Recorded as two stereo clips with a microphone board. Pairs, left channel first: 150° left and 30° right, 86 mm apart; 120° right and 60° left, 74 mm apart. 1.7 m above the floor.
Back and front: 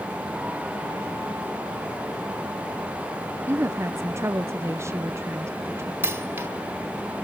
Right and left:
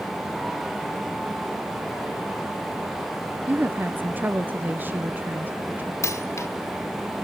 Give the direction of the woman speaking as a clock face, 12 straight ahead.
12 o'clock.